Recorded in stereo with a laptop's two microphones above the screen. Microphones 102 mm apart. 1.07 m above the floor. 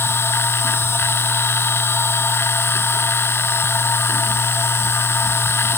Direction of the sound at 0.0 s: 25° left (ahead or behind).